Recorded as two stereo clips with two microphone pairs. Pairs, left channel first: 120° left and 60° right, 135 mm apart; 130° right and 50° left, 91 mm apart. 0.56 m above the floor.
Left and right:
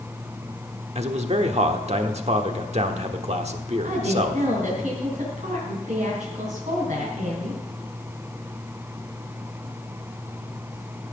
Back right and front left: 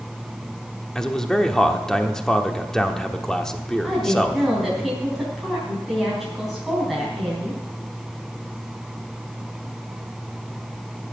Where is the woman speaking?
40° right, 3.5 m.